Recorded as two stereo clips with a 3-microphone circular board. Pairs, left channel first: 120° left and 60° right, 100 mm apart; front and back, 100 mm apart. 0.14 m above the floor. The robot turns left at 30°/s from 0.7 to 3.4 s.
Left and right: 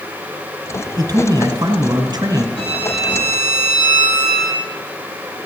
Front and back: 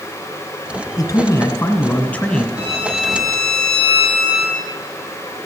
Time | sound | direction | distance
1.0 | a man speaking | 35° right | 1.6 m
2.6 | a violin | 105° left | 6.5 m